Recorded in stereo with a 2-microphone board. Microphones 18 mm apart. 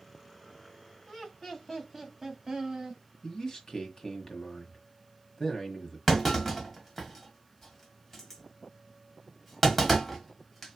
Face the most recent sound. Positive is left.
turn(degrees=10)  # may be behind; listen again after turning